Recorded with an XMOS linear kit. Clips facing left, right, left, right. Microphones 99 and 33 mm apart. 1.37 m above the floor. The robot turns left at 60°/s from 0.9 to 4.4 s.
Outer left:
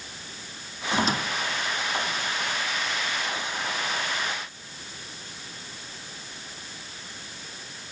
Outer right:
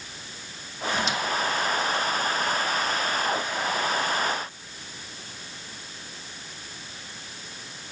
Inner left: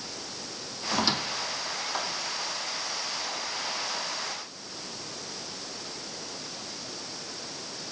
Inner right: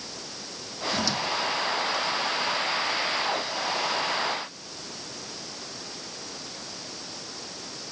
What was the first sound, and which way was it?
A squeak, 35° left (ahead or behind).